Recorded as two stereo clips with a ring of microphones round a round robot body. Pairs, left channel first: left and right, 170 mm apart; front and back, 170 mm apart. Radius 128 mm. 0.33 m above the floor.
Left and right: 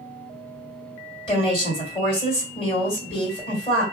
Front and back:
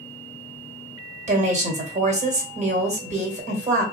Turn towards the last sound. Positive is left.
turn(degrees=145)